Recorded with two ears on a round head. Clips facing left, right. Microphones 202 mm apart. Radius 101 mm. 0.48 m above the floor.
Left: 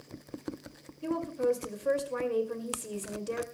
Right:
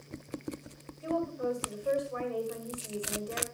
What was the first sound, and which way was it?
A woman speaking, 60° left (ahead or behind).